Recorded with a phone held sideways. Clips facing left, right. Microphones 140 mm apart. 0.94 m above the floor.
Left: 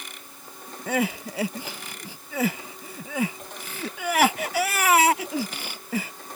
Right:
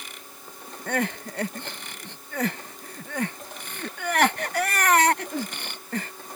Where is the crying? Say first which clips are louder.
Left 2 dB; 5° left (ahead or behind).